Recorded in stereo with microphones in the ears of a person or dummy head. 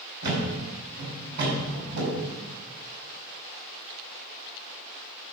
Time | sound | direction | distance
0.2 | a thud | 55° right (ahead or behind) | 5 m